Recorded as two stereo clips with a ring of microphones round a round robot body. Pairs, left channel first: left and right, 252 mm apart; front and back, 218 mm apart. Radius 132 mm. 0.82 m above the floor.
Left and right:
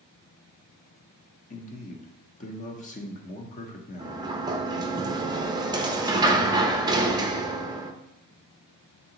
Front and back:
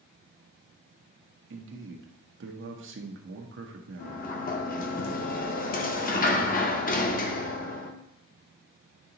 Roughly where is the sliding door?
Ahead right.